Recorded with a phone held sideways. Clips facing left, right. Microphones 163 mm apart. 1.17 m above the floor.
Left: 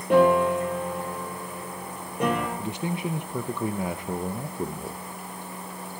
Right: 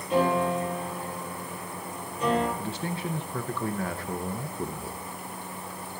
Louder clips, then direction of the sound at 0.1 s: Left 6 dB; 75° left (ahead or behind).